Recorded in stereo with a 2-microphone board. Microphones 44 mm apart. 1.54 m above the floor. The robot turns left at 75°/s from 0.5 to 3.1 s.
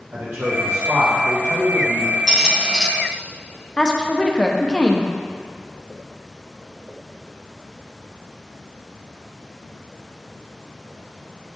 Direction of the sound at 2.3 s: 20° right (ahead or behind).